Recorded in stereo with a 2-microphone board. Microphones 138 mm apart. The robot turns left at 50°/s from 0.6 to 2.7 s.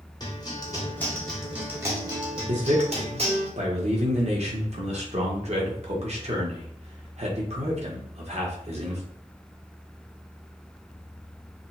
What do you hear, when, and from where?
0.2 s a guitar: 40° left, 1.2 m; by 3.5 s 65° right, 1.2 m
2.5 s a man speaking: 60° right (ahead or behind), 1.1 m; by 9.0 s 50° right (ahead or behind), 1.1 m